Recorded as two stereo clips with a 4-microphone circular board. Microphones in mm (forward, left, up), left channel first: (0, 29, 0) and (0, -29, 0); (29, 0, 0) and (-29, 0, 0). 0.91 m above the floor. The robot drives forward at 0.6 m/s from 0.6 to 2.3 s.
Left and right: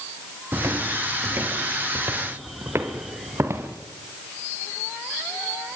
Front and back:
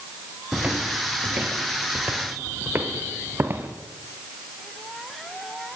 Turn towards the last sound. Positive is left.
turn(degrees=-135)